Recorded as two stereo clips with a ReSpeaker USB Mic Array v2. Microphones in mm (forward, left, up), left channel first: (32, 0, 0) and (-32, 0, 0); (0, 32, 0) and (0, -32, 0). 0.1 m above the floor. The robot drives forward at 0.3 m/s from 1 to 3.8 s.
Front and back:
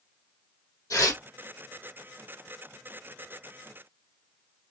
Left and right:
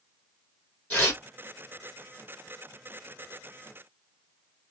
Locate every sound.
0.9 s tearing paper: 25° left, 2 m